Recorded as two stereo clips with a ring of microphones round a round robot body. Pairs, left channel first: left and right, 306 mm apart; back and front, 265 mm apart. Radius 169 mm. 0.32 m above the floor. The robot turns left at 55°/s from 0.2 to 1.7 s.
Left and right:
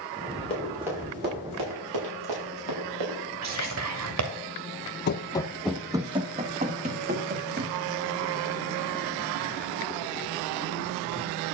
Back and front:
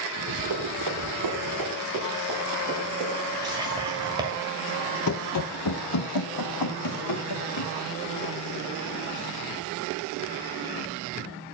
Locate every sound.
0.5 s running footsteps: 15° left, 7.5 m; by 3.2 s 65° right, 6.5 m
3.4 s whispering: 75° right, 1.6 m
5.1 s running footsteps: 145° left, 0.5 m; by 7.7 s 155° right, 2.5 m